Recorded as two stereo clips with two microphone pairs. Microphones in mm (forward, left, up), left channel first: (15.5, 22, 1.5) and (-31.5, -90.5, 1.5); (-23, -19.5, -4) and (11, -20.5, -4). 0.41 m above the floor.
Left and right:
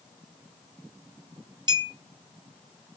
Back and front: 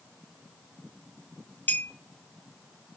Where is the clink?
160° right, 1.7 m.